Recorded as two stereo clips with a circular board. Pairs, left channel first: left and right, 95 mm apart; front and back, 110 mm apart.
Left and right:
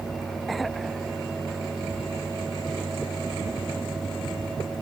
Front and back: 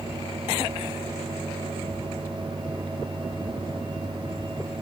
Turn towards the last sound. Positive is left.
No sound to turn to.